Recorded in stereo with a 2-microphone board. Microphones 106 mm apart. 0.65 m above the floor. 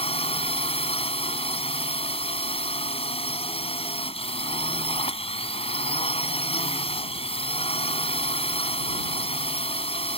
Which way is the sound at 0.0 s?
65° left (ahead or behind).